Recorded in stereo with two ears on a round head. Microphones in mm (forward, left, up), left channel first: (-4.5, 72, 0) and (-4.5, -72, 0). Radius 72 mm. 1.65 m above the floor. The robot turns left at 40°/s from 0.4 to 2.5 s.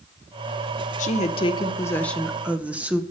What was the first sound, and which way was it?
A woman speaking, 50° left.